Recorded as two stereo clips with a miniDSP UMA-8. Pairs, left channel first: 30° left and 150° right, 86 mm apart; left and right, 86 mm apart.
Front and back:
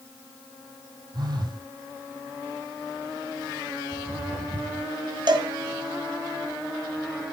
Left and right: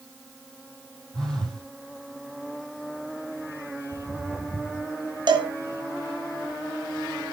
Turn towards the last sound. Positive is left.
turn(degrees=-125)